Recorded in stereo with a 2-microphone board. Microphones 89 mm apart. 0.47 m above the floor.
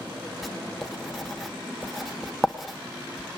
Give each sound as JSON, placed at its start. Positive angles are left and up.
{"t": 0.4, "sound": "writing", "side_deg": 0, "distance_m": 1.1}